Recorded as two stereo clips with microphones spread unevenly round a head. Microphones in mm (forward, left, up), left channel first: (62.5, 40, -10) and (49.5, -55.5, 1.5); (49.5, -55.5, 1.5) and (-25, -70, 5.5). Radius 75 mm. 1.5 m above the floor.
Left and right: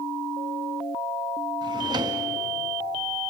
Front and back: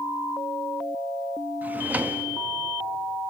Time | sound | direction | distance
1.6 | a drawer | 110° right | 1.1 m